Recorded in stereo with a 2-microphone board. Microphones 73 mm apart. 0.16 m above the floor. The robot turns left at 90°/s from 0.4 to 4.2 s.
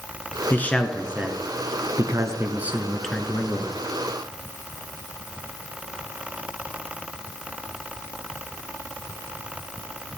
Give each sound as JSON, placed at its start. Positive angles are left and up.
{"t": 0.5, "sound": "a man speaking", "azimuth_deg": 40, "distance_m": 1.6}